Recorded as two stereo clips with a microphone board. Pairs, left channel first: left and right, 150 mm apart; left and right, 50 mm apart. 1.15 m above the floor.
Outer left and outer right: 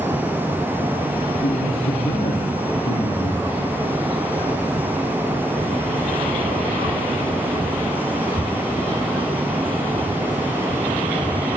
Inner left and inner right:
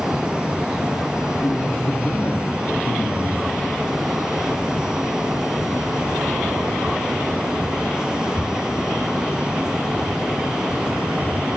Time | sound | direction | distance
1.4 | a man speaking | 80° left | 1.8 m